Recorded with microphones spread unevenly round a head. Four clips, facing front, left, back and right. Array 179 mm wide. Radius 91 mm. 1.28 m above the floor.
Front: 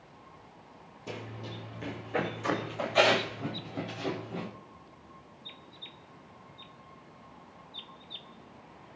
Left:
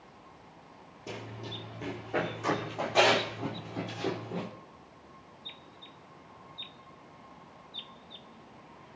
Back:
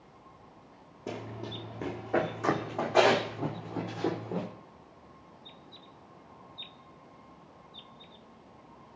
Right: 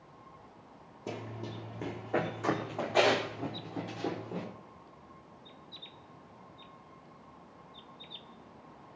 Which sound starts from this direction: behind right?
Running footsteps, at 1.1 s.